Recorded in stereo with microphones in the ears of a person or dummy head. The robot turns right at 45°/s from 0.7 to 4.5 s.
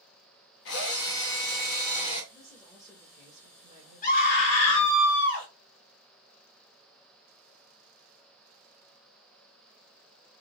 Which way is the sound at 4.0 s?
40° left (ahead or behind).